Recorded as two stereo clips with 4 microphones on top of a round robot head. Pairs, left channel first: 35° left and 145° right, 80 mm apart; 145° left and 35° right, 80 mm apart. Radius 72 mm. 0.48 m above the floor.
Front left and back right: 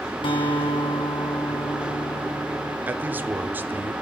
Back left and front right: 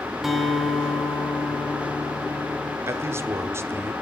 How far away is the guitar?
About 2.5 m.